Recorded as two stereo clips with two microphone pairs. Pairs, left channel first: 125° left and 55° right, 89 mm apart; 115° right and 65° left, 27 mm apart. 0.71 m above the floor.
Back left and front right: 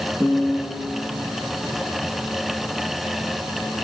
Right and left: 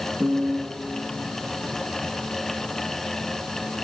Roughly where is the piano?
Ahead.